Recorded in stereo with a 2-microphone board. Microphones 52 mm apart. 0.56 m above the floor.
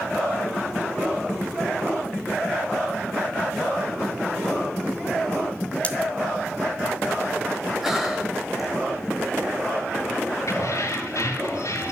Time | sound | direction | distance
5.8 | cutlery clinking | 25° left (ahead or behind) | 1.6 m
7.8 | breathing | 5° right (ahead or behind) | 3 m
10.5 | keys jangling | 65° left (ahead or behind) | 5.5 m